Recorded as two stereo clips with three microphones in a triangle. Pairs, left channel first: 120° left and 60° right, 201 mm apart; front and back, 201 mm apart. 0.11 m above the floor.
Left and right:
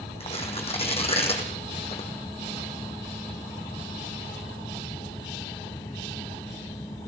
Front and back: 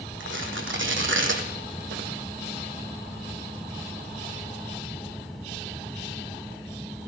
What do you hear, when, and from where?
0.2 s tearing paper: straight behind, 1.8 m